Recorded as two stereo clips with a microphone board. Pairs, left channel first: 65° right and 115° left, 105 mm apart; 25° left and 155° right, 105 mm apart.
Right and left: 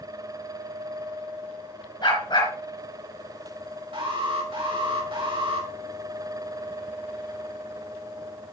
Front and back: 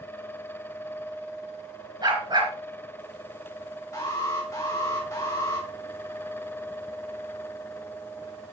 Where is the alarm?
80° left, 3.5 m.